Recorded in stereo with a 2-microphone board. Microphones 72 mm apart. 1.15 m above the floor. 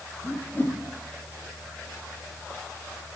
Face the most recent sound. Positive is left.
turn(degrees=30)  # may be behind; listen again after turning